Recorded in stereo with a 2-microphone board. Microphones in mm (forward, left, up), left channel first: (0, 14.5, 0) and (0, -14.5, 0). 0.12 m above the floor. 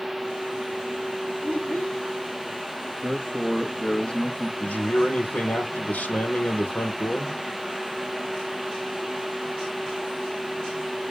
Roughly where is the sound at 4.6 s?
Left.